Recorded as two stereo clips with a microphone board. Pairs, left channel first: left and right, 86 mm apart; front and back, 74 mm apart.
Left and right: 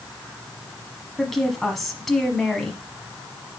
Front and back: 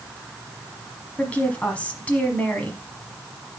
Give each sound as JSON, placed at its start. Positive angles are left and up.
{"t": 1.2, "sound": "a woman speaking", "azimuth_deg": 5, "distance_m": 1.2}